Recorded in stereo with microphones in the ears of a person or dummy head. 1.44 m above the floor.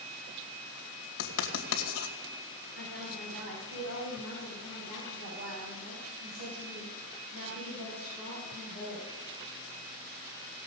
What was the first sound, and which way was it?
Writing, 70° left (ahead or behind).